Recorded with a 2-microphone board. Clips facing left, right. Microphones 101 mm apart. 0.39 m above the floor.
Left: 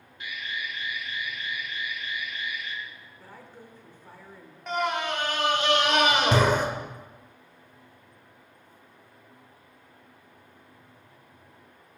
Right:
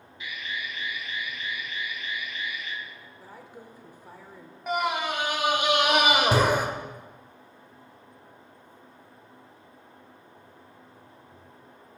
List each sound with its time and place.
0.2 s an alarm: 50° left (ahead or behind), 2 m
3.2 s a woman speaking: 15° right (ahead or behind), 0.8 m
4.7 s a scream: 10° right (ahead or behind), 1.0 m